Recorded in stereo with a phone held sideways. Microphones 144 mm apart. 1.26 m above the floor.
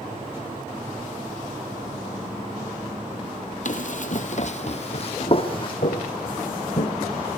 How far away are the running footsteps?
About 2 m.